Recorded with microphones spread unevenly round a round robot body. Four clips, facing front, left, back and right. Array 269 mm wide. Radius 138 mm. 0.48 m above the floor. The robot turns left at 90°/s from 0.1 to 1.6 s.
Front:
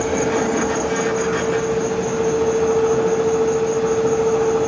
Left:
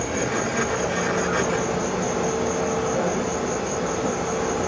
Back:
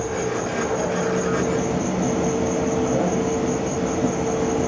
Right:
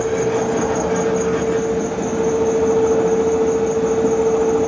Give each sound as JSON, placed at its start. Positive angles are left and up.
{"t": 0.0, "sound": "an insect", "azimuth_deg": -10, "distance_m": 2.0}